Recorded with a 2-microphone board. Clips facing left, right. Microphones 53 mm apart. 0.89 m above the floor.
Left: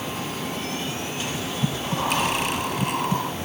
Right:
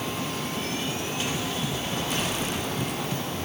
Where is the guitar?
I don't hear a guitar.